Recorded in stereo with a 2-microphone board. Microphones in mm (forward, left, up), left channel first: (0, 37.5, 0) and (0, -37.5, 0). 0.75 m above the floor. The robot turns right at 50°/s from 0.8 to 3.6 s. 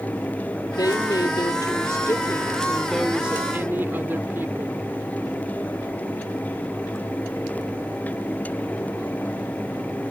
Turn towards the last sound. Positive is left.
turn(degrees=-145)